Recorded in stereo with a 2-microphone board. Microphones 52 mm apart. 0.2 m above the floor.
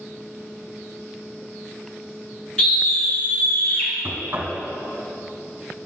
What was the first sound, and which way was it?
A scream, 15° left (ahead or behind).